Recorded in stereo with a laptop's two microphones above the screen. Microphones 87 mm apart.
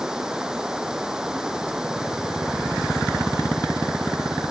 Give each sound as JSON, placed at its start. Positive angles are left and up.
{"t": 0.0, "sound": "running water", "side_deg": -5}